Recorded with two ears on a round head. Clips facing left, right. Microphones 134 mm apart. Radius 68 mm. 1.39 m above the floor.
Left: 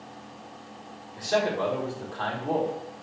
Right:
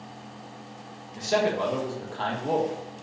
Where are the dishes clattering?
I don't hear dishes clattering.